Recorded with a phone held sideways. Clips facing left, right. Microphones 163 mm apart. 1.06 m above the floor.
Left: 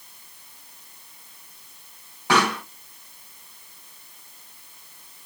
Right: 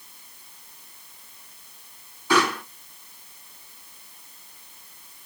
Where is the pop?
80° left, 4 m.